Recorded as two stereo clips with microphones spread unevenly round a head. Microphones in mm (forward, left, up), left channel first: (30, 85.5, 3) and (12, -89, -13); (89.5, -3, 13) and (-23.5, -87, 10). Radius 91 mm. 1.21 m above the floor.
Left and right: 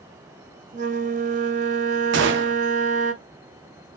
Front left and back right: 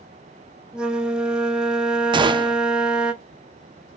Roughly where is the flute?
Ahead right.